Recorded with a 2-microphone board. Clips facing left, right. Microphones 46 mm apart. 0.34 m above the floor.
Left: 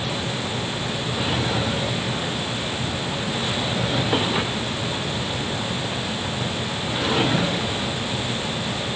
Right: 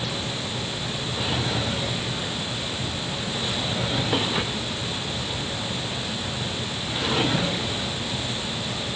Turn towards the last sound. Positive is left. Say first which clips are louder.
# left 3 dB
turn(degrees=10)  # may be behind; listen again after turning